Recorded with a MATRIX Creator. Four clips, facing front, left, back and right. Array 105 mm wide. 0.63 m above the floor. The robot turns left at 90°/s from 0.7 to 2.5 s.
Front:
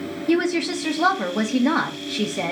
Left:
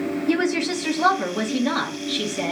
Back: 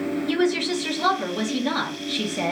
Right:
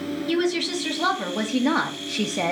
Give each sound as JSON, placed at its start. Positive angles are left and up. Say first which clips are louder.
{"t": 0.3, "sound": "a woman speaking", "louder": "left 1 dB, front 4 dB", "azimuth_deg": 60, "distance_m": 1.0}